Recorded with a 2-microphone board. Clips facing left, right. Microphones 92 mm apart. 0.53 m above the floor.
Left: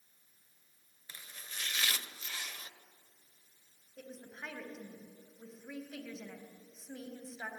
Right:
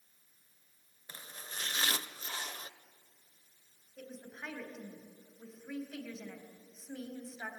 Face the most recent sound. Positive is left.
turn(degrees=5)  # may be behind; listen again after turning